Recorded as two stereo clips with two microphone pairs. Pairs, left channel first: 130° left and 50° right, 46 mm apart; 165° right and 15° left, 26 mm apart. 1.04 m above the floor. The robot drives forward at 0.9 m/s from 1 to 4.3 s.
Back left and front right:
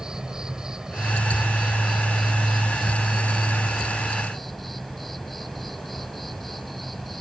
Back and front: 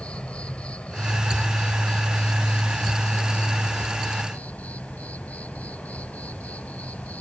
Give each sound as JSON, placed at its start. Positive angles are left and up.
{"t": 0.0, "sound": "an insect", "azimuth_deg": -130}